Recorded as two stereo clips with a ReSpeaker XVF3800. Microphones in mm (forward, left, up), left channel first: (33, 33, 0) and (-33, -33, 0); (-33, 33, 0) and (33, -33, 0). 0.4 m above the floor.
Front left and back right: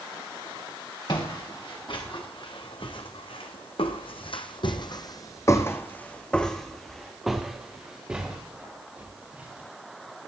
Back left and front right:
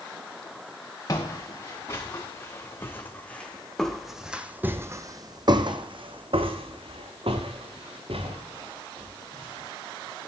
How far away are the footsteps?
About 2.5 m.